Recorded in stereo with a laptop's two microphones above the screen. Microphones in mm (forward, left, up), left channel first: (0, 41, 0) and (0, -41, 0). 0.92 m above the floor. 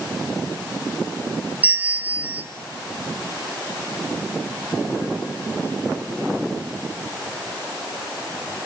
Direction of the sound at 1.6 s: 20° right (ahead or behind).